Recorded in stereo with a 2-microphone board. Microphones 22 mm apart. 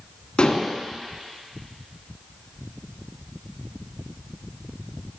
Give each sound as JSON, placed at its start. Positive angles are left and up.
{"t": 0.4, "sound": "dishes clattering", "side_deg": 50, "distance_m": 1.6}